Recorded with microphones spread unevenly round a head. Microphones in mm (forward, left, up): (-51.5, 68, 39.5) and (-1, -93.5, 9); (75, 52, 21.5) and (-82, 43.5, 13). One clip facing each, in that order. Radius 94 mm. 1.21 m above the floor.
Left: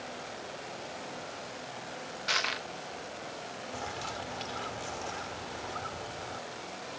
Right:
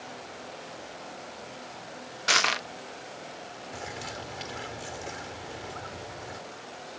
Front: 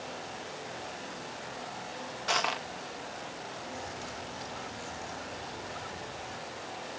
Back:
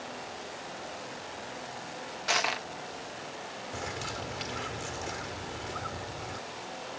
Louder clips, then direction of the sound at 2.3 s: Right 8 dB, even; 90° right.